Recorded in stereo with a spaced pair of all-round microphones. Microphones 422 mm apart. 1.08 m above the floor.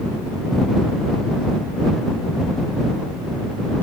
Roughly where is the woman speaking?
No woman speaking in this recording.